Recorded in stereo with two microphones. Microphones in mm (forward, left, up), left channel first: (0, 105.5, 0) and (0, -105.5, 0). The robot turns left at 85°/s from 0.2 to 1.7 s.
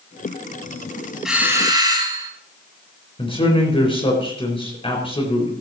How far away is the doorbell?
About 2 m.